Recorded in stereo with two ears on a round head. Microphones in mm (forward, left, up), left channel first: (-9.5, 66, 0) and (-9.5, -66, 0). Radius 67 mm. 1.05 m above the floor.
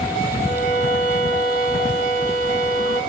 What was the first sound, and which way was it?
A violin, 55° right (ahead or behind).